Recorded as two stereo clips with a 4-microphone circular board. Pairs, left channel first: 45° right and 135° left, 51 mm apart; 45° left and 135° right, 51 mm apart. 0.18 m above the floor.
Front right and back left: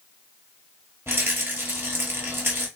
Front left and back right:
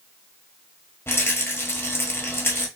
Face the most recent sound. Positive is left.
turn(degrees=85)